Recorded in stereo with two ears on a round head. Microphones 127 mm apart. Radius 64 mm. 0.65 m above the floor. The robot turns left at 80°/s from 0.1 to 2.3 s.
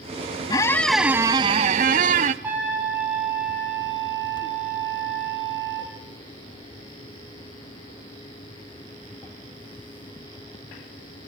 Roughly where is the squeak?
Ahead left.